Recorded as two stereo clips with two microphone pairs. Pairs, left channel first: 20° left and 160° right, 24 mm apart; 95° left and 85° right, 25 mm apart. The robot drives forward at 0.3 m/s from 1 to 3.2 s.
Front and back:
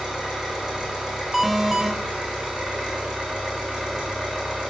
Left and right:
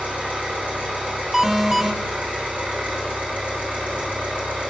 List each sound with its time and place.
0.0 s an engine running: 105° right, 5.5 m; by 4.7 s 115° right, 5.5 m
1.3 s an alarm: 90° right, 0.8 m; by 1.9 s 125° right, 0.8 m